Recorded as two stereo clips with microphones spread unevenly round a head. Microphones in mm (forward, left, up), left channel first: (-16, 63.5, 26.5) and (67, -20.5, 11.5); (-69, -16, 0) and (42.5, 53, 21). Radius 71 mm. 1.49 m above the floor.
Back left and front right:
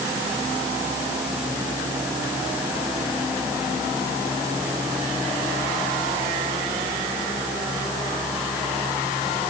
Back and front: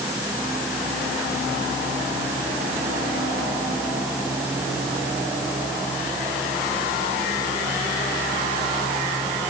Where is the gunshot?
No gunshot in this recording.